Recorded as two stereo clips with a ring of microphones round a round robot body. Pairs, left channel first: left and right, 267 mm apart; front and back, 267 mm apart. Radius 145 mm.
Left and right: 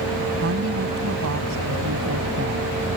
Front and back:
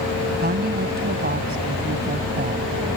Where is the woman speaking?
130° right.